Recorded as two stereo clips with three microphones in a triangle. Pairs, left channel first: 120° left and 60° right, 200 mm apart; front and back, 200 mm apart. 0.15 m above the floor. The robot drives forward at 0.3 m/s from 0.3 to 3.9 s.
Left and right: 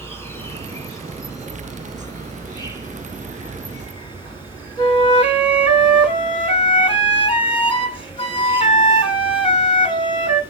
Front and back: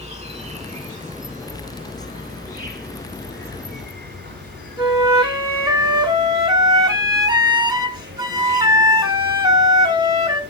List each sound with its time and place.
0.0 s an insect: 175° right, 1.6 m
4.8 s a flute: 135° left, 1.8 m